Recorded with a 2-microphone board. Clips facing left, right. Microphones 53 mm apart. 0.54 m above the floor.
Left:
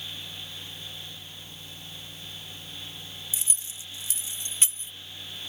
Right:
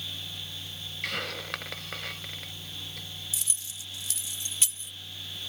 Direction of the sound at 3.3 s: 30° left (ahead or behind).